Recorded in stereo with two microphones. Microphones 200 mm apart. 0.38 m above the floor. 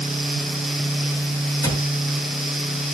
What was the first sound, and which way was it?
A cupboard door, 15° left (ahead or behind).